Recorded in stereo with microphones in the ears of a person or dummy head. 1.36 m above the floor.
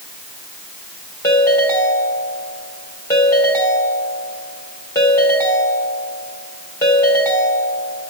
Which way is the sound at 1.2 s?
15° left (ahead or behind).